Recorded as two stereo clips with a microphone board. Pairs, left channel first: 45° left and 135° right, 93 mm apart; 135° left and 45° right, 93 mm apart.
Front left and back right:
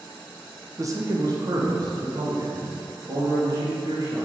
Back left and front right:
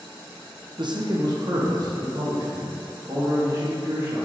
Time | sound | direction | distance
0.8 | a man speaking | 80° right | 0.8 m